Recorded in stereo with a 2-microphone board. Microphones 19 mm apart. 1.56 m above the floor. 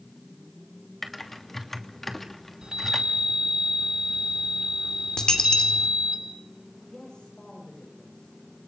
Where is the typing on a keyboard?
15° left (ahead or behind), 3 m.